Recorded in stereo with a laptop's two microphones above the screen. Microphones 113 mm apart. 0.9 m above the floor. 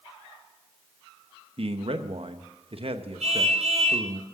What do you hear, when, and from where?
1.6 s a man speaking: 55° right (ahead or behind), 0.9 m
3.2 s a car horn: 70° right (ahead or behind), 6 m